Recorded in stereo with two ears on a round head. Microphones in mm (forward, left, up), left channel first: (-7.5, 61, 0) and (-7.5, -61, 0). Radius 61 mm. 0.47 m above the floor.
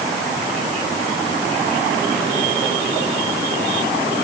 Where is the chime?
No chime in this recording.